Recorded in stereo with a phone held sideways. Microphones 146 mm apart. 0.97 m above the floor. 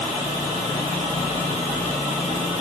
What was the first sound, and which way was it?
Only background noise.